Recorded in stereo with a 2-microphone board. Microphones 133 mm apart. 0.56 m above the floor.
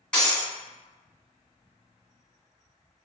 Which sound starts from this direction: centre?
Breaking glass, at 0.1 s.